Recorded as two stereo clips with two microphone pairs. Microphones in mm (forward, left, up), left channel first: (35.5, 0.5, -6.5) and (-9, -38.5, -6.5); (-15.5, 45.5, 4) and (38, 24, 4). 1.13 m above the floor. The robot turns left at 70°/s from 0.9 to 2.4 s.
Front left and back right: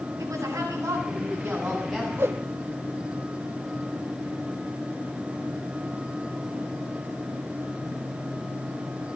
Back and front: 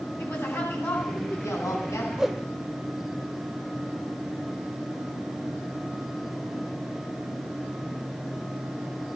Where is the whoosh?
100° right, 1.6 m; by 2.4 s 115° right, 1.6 m.